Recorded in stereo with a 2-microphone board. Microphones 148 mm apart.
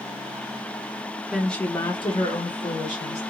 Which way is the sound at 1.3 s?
5° right (ahead or behind).